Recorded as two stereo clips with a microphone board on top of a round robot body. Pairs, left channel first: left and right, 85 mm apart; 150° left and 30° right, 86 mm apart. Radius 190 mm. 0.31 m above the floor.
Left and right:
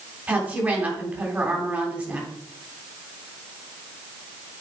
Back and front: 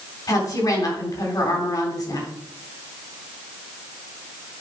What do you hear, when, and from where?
0.3 s a woman speaking: 165° right, 3.5 m